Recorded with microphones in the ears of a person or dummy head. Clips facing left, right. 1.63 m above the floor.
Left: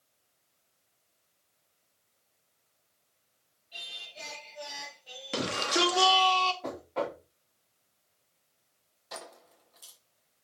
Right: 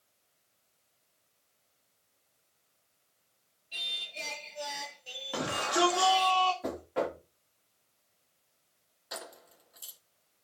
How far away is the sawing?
I don't hear sawing.